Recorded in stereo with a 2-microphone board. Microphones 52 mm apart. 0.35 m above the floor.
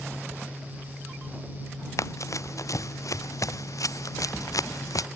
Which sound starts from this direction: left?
Running footsteps, at 2.0 s.